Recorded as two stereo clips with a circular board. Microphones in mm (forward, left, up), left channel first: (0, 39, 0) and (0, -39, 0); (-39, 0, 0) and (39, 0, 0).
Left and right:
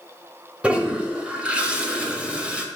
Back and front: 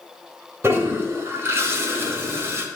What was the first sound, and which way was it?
A toilet flushing, 25° right.